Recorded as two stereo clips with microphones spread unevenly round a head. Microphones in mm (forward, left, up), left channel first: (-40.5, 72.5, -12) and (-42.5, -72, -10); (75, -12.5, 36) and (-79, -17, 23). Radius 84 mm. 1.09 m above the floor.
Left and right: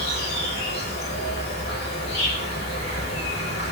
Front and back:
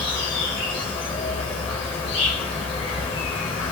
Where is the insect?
65° left, 1.1 m.